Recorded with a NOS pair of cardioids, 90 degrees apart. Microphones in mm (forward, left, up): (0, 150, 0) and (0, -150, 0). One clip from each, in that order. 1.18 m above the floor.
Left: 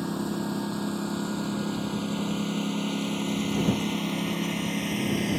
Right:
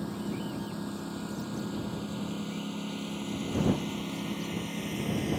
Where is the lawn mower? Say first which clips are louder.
Left 6 dB; 55° left; by 5.4 s 50° left.